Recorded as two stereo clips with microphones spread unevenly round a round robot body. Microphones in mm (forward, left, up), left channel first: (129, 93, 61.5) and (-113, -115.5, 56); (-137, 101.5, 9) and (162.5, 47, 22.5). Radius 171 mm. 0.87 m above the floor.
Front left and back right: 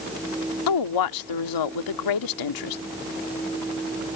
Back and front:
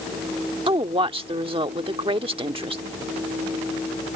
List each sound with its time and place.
0.7 s a woman speaking: 65° left